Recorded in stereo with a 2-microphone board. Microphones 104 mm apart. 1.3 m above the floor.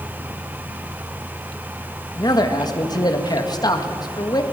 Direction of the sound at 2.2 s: 40° left (ahead or behind).